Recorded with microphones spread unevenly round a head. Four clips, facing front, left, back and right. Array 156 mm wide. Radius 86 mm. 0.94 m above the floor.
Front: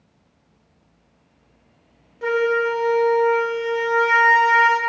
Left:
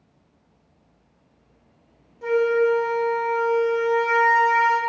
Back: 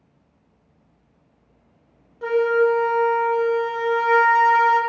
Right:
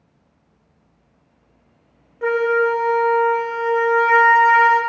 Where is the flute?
85° right, 0.8 m.